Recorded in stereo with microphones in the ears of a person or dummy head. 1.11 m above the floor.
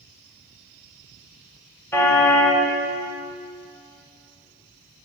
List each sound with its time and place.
1.9 s a car horn: 10° left (ahead or behind), 2.5 m